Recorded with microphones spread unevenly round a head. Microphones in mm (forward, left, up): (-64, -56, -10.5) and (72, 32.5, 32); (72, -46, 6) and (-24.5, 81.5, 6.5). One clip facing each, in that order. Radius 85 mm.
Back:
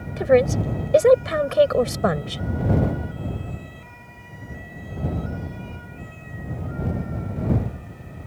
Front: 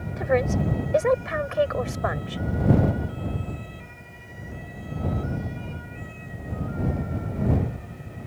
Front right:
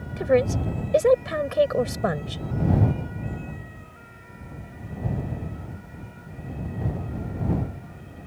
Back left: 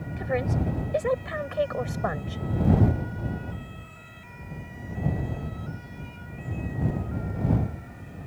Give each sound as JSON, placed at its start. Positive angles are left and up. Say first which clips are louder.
{"t": 0.2, "sound": "a woman speaking", "louder": "back 6 dB, front right 7 dB", "azimuth_deg": -95}